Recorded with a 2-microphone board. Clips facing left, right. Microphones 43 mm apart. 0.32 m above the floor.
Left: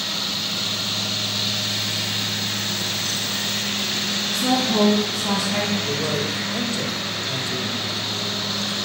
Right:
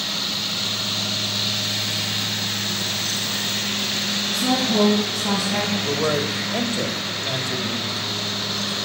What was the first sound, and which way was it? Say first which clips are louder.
A woman speaking: even; 5° left (ahead or behind).